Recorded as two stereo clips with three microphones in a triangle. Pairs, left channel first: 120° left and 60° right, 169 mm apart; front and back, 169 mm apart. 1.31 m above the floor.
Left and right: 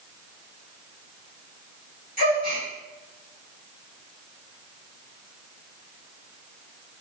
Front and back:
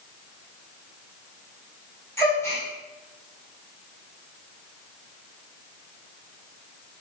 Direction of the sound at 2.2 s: 75° right.